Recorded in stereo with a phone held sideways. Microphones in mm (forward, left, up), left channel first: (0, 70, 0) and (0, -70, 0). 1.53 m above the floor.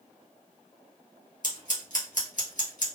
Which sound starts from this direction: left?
Scissors, at 1.4 s.